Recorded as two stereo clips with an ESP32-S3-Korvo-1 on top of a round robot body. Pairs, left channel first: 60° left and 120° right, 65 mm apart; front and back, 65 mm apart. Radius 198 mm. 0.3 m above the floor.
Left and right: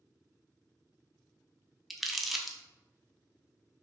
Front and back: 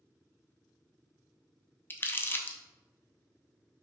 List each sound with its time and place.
1.9 s crumpling: 30° right, 0.6 m